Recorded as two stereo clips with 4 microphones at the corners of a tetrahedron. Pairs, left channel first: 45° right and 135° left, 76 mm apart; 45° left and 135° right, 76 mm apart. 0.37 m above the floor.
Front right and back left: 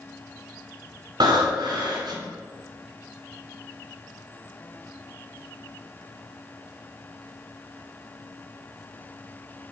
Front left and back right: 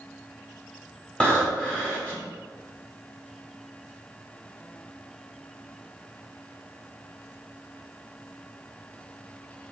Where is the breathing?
125° left, 1.1 m.